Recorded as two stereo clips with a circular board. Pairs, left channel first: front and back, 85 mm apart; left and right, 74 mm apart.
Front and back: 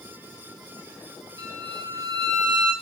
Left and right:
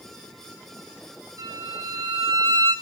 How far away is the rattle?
No rattle in this recording.